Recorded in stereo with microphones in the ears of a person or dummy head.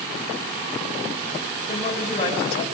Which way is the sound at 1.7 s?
35° left (ahead or behind).